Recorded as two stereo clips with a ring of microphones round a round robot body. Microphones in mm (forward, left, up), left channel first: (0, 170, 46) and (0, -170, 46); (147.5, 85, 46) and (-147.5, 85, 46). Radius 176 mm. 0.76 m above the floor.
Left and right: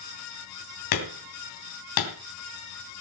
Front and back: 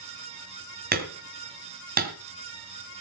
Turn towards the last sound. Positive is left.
turn(degrees=120)